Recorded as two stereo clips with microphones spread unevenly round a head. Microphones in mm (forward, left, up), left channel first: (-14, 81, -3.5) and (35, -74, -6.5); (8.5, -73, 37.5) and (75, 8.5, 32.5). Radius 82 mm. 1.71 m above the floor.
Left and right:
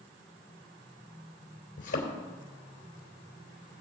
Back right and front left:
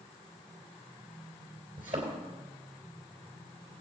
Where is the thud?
110° left, 3 m.